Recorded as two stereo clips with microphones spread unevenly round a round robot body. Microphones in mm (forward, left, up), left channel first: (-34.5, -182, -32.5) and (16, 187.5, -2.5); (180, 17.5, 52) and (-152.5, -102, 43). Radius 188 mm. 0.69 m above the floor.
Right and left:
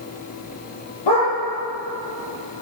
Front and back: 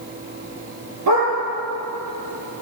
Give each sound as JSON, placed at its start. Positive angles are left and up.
{"t": 1.1, "sound": "a dog barking", "azimuth_deg": -115, "distance_m": 8.5}